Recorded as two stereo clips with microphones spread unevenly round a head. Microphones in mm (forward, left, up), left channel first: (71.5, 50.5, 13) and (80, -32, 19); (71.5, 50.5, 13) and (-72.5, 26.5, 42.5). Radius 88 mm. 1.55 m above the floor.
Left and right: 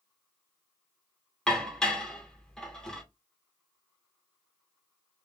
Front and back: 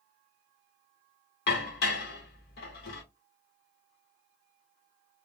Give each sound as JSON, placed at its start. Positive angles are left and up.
{"t": 1.5, "sound": "dishes clattering", "azimuth_deg": 15, "distance_m": 0.9}